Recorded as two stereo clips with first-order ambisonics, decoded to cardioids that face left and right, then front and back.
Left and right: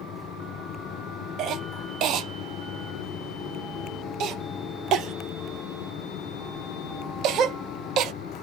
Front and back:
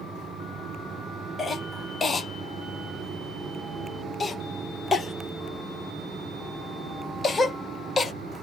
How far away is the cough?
About 0.6 m.